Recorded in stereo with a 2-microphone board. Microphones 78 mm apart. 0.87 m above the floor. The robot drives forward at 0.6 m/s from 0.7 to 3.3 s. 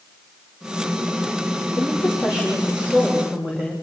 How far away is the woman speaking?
About 3.5 m.